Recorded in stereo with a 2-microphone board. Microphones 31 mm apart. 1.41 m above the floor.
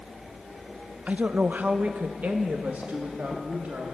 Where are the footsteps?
No footsteps in this recording.